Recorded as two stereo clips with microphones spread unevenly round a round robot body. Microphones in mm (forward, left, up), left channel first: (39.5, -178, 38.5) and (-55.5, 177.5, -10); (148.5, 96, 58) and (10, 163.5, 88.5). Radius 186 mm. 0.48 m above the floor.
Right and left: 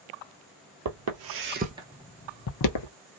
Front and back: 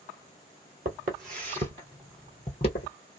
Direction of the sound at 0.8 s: 150° left.